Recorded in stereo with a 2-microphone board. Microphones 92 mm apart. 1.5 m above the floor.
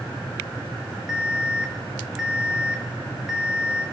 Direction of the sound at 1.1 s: 5° right (ahead or behind).